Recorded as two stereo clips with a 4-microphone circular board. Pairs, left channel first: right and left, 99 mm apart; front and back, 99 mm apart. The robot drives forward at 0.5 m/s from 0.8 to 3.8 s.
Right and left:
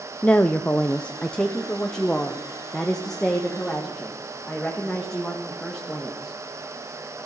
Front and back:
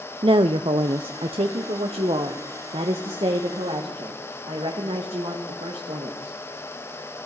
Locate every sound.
0.2 s a woman speaking: 165° right, 0.6 m; by 6.4 s 175° right, 2 m